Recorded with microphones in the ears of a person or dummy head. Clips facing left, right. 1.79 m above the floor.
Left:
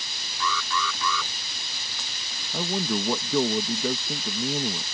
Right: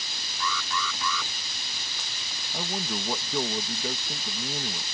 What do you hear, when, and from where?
0.4 s an alarm: 70° left (ahead or behind)
2.5 s a man speaking: 70° left (ahead or behind)